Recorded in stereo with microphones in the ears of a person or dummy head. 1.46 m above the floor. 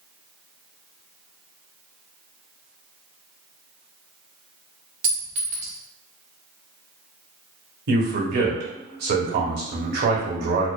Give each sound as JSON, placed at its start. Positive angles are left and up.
{"t": 5.0, "sound": "a clink", "side_deg": -35, "distance_m": 0.8}
{"t": 7.9, "sound": "a man speaking", "side_deg": -50, "distance_m": 0.8}